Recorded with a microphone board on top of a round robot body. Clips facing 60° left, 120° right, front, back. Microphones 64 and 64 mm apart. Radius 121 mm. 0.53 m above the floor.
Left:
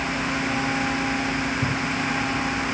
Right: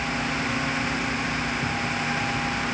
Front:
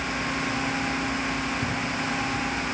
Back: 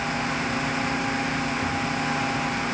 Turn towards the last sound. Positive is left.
turn(degrees=70)